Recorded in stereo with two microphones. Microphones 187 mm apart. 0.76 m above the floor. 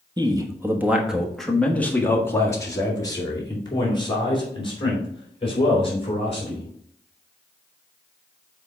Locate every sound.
0.2 s a man speaking: 25° right (ahead or behind), 1.0 m; by 6.7 s 30° left (ahead or behind), 3.5 m